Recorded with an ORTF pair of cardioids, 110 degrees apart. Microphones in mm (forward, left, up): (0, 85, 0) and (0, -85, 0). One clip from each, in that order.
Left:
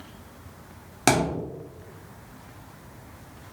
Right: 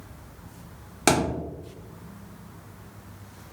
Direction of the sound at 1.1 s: Straight ahead.